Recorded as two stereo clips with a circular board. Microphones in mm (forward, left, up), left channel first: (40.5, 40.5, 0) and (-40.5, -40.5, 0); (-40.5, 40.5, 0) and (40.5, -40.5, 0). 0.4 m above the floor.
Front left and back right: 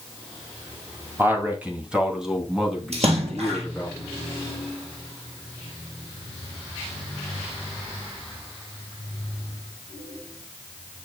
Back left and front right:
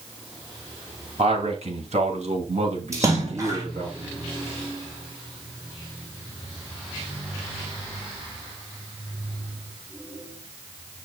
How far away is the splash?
About 3 m.